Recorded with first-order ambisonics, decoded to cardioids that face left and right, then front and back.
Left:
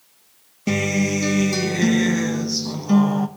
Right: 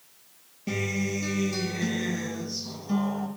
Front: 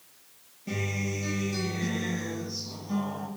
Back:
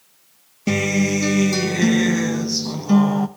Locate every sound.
0.7 s a guitar: 145° left, 1.0 m